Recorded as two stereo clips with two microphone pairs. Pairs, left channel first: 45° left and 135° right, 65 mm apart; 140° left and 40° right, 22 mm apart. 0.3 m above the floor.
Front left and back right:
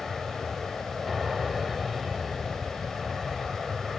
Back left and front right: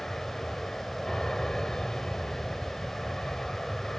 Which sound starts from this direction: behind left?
An aircraft, at 0.0 s.